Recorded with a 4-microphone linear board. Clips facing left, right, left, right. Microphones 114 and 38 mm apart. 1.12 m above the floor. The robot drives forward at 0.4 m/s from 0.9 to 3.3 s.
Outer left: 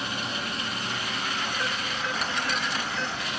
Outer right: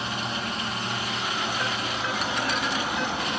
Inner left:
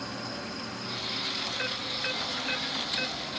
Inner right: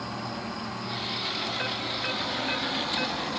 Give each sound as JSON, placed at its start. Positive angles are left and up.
{"t": 0.0, "sound": "an insect", "side_deg": -25, "distance_m": 1.5}